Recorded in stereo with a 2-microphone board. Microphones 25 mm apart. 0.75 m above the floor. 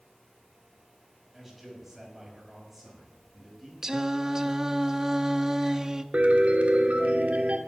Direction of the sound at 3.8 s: 20° right (ahead or behind).